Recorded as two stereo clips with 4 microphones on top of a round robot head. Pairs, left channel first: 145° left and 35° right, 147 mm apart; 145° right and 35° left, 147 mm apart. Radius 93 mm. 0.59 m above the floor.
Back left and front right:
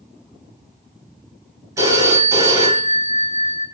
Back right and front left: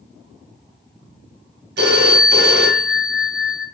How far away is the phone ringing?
About 3 m.